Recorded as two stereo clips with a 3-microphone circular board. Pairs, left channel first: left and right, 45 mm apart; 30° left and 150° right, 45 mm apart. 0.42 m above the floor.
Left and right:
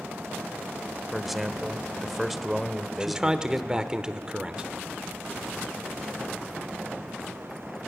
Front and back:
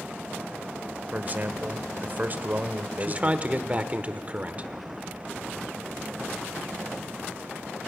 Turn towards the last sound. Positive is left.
turn(degrees=-145)